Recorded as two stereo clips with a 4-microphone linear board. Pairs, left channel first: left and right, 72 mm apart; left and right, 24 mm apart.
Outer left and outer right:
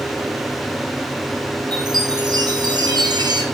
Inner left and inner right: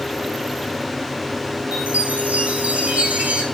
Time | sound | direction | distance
1.7 | a chime | 70° right (ahead or behind) | 2.5 m